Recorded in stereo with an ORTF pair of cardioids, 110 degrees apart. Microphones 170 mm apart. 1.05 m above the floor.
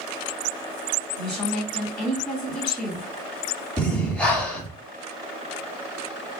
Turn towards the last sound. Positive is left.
turn(degrees=5)